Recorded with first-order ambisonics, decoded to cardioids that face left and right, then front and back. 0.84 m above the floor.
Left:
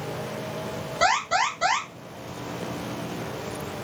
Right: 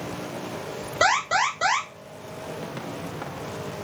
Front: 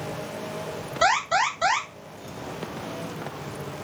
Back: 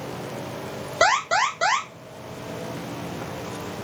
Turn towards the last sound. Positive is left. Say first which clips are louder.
# right 1 dB, back 2 dB
turn(degrees=-160)